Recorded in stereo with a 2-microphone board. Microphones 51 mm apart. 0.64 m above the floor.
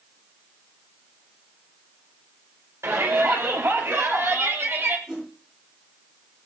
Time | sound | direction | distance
2.8 | a shout | 65° right (ahead or behind) | 2.5 m
5.1 | a whoosh | 10° right (ahead or behind) | 9 m